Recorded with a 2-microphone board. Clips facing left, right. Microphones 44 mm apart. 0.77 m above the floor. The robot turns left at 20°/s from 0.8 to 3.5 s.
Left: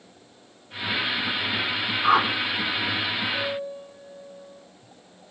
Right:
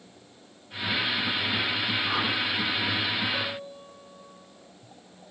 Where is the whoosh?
60° left (ahead or behind), 2 m; by 2.3 s 65° left (ahead or behind), 2 m.